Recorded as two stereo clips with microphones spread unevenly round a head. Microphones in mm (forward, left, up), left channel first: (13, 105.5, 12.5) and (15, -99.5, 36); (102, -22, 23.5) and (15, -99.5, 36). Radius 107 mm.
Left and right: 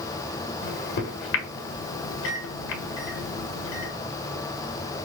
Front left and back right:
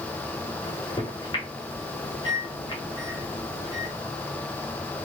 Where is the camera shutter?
No camera shutter in this recording.